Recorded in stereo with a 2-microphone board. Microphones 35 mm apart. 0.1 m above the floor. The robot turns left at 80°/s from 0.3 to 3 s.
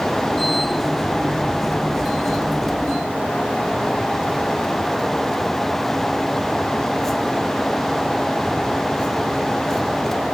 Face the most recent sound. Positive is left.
No sound to turn to.